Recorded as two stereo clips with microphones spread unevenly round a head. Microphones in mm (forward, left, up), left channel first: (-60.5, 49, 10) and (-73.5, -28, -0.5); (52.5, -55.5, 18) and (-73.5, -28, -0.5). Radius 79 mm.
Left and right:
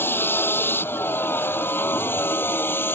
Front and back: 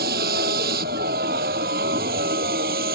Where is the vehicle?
140° left.